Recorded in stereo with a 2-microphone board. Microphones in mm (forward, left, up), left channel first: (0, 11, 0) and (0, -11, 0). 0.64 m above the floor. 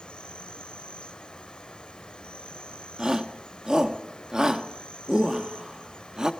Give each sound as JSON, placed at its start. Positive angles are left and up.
{"t": 0.0, "sound": "an insect", "side_deg": 55, "distance_m": 1.4}
{"t": 3.0, "sound": "a shout", "side_deg": -30, "distance_m": 1.3}